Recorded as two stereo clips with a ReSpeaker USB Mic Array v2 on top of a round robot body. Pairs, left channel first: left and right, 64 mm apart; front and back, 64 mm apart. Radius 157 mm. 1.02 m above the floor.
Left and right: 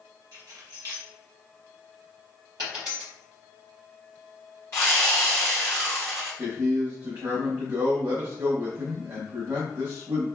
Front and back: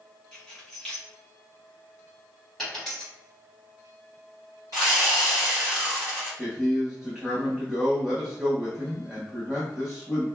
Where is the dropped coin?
85° right, 1.0 m.